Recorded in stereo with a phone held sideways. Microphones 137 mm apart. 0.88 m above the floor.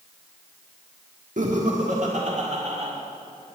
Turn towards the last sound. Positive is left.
turn(degrees=-55)  # may be behind; listen again after turning